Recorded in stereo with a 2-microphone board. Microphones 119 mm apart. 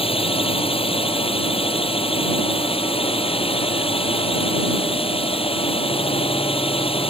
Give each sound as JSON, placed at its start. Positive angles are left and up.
{"t": 0.0, "sound": "a drone", "side_deg": 50}